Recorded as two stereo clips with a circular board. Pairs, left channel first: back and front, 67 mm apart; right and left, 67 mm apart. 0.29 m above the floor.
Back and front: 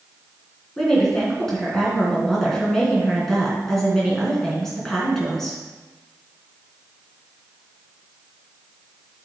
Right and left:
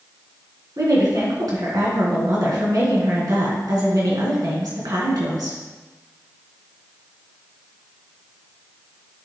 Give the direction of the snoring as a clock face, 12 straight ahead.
I don't hear snoring.